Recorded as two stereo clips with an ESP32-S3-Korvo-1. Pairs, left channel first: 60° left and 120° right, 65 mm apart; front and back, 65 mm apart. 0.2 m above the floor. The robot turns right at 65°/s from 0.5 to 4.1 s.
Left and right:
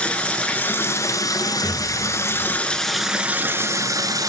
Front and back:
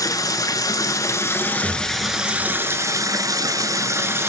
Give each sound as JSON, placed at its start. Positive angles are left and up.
{"t": 0.0, "sound": "running water", "azimuth_deg": -10, "distance_m": 0.8}
{"t": 1.6, "sound": "an explosion", "azimuth_deg": -45, "distance_m": 1.5}